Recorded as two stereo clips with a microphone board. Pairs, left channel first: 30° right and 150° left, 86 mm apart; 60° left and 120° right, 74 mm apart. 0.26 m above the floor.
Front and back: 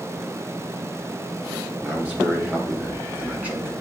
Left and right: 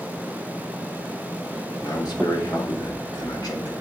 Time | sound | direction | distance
1.8 | a man speaking | 80° left | 3 m